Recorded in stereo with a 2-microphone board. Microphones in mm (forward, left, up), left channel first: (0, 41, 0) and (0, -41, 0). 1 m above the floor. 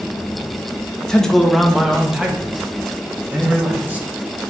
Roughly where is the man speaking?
Centre.